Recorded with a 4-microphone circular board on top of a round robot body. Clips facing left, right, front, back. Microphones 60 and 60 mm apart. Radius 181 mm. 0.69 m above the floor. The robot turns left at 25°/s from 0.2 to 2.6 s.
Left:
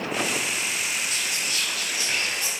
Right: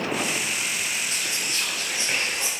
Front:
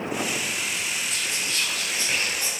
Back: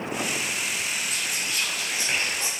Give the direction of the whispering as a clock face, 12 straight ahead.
3 o'clock.